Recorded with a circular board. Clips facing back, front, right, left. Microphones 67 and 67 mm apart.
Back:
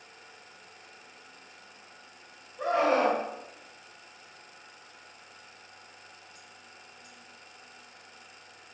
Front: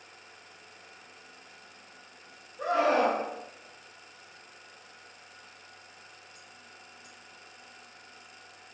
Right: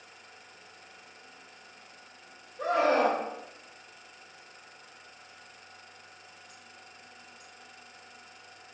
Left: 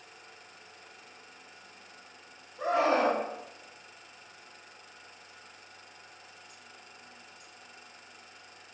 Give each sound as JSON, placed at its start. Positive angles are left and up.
{"t": 2.6, "sound": "a scream", "azimuth_deg": 140, "distance_m": 1.6}